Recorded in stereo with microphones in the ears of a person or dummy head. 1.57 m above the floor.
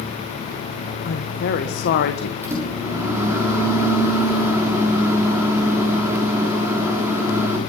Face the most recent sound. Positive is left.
turn(degrees=-20)  # may be behind; listen again after turning